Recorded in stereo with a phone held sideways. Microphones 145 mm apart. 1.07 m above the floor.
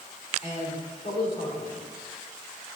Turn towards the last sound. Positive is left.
turn(degrees=40)  # may be behind; listen again after turning